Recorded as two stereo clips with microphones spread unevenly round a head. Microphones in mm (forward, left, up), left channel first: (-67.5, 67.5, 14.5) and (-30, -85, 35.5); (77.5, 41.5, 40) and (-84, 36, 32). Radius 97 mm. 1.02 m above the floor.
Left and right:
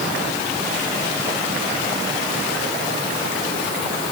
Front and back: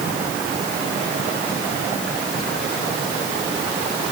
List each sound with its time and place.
Only background noise.